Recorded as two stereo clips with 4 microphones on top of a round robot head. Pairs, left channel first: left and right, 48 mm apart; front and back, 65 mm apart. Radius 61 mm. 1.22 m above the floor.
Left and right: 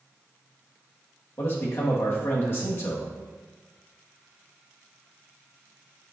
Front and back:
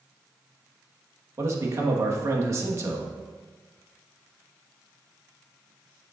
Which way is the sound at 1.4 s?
140° left.